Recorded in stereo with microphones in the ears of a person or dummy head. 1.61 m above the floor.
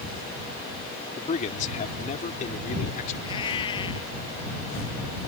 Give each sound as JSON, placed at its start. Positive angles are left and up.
{"t": 1.2, "sound": "a man speaking", "side_deg": 35}
{"t": 3.2, "sound": "a cat meowing", "side_deg": 25}